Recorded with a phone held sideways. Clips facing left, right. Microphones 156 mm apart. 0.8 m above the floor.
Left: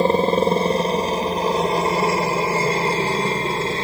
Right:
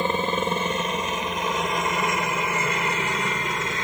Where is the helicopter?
35° left (ahead or behind).